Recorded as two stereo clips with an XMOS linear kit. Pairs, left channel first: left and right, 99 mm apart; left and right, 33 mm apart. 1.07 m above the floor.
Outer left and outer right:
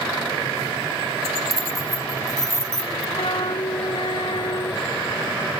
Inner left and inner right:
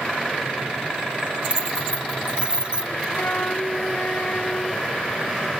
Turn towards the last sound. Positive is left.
turn(degrees=60)  # may be behind; listen again after turning